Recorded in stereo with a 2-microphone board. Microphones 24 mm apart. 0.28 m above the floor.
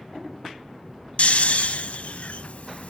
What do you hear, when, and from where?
1.2 s snoring: 60° left (ahead or behind), 0.6 m